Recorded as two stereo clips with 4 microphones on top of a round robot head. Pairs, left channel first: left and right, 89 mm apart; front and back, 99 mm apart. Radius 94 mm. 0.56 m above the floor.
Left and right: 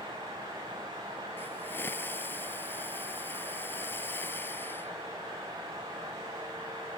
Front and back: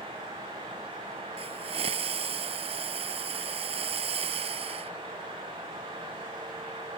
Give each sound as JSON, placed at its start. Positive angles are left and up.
{"t": 1.4, "sound": "a hiss", "azimuth_deg": 165}